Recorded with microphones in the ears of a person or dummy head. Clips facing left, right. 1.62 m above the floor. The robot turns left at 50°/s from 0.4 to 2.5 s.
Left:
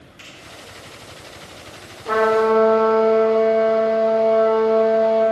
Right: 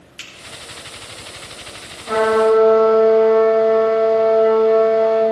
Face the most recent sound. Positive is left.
turn(degrees=65)  # may be behind; listen again after turning